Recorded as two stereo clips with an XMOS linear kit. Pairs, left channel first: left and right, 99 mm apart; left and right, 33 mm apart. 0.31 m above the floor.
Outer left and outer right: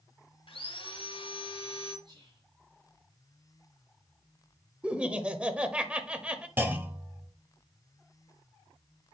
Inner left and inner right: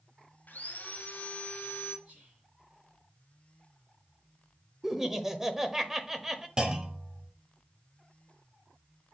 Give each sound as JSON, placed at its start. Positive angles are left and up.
{"t": 0.5, "sound": "sawing", "side_deg": 65, "distance_m": 1.9}
{"t": 2.0, "sound": "whispering", "side_deg": -50, "distance_m": 2.0}
{"t": 4.8, "sound": "laughter", "side_deg": -10, "distance_m": 0.9}
{"t": 6.6, "sound": "a clunk", "side_deg": -20, "distance_m": 1.1}